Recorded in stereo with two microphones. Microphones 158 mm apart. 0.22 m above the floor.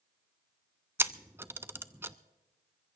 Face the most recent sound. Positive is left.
turn(degrees=-15)  # may be behind; listen again after turning